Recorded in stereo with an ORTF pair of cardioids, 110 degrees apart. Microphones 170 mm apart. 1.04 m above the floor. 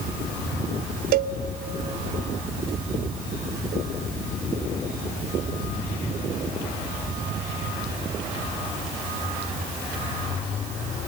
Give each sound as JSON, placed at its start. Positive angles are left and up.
{"t": 1.1, "sound": "a cowbell", "azimuth_deg": -65, "distance_m": 0.7}